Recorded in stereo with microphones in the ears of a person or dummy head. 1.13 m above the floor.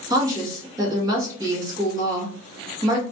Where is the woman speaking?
10° right (ahead or behind), 1.7 m.